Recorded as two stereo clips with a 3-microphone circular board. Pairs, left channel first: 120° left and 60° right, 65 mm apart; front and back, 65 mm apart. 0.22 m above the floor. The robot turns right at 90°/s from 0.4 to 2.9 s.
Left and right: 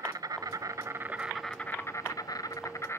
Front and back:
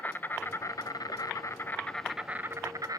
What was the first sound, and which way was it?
An insect, 60° right.